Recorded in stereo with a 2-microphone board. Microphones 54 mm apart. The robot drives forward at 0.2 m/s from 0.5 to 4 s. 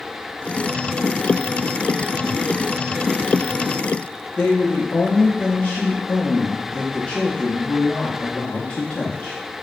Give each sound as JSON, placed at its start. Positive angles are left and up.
{"t": 4.4, "sound": "a woman speaking", "side_deg": 20, "distance_m": 0.5}